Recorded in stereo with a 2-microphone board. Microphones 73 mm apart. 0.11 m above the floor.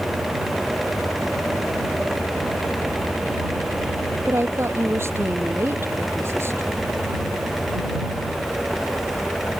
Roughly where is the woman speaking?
Right.